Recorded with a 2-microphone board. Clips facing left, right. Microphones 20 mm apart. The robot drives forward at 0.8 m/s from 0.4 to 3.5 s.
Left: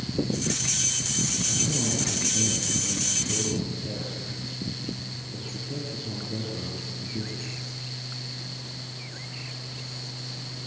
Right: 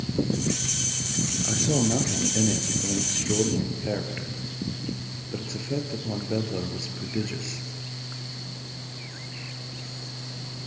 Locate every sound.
1.4 s a man speaking: 70° right (ahead or behind), 4 m; by 7.7 s 55° right (ahead or behind), 4.5 m